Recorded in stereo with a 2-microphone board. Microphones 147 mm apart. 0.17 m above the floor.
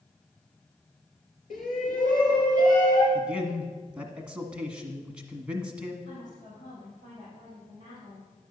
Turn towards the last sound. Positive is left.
turn(degrees=60)  # may be behind; listen again after turning